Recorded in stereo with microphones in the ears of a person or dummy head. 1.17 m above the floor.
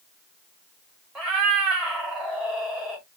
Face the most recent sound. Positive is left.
turn(degrees=-5)  # may be behind; listen again after turning